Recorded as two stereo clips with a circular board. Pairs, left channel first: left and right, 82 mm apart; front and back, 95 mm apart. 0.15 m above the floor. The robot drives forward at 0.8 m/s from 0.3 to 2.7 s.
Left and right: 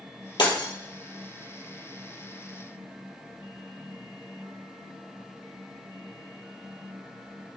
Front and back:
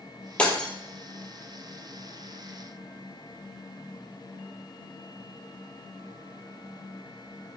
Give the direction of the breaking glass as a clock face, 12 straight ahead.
9 o'clock.